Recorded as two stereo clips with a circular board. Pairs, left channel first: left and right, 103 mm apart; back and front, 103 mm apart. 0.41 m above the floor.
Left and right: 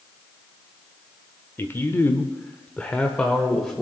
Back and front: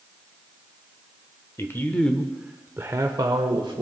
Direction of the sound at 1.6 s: 140° left.